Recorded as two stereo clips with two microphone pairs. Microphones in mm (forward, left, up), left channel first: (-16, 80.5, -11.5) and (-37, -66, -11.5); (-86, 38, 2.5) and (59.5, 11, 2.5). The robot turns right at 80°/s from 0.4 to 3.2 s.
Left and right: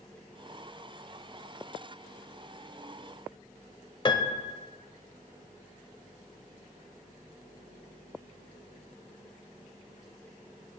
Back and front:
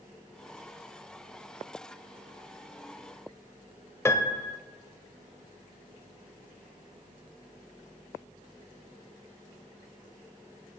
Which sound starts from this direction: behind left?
A piano, at 4.0 s.